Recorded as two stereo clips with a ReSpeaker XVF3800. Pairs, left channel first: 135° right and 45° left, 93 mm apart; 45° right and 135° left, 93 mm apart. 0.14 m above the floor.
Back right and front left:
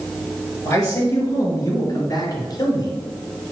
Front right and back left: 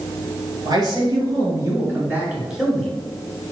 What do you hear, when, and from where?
0.7 s a man speaking: 170° left, 3.5 m; by 3.0 s 125° right, 2 m